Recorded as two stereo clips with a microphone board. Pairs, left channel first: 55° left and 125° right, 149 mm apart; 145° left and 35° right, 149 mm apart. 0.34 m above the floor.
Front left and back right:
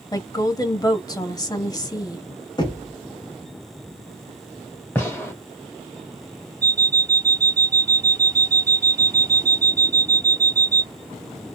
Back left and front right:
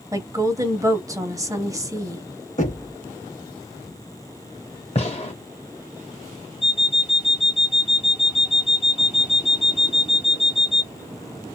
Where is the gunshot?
125° left, 2 m.